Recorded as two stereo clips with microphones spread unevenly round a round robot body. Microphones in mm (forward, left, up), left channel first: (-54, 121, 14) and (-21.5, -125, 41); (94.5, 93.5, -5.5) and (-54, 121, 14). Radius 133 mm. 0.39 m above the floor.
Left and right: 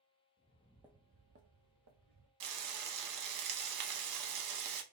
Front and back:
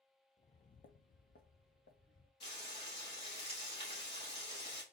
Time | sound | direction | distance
0.4 | footsteps | 45° left | 0.6 m
2.4 | frying | 80° right | 0.7 m